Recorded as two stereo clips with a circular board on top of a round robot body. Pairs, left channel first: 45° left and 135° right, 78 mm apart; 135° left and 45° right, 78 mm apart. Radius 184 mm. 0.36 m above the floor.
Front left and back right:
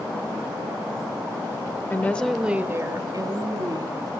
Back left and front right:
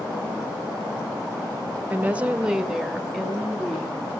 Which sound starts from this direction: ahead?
A woman speaking, at 1.9 s.